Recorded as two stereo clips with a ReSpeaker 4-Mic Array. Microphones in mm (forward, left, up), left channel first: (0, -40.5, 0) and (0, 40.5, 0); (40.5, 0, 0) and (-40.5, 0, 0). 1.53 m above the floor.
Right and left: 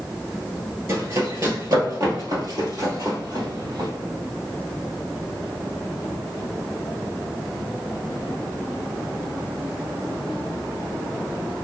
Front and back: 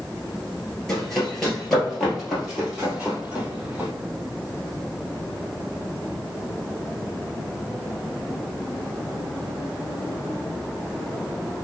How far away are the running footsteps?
About 1.9 m.